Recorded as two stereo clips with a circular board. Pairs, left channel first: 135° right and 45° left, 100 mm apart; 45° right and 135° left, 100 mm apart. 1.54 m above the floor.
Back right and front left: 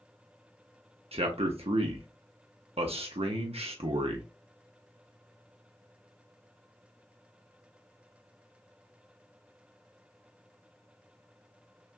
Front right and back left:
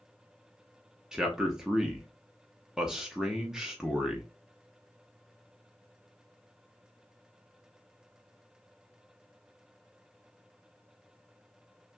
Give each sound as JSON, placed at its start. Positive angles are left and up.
{"t": 1.1, "sound": "a man speaking", "azimuth_deg": 50, "distance_m": 0.7}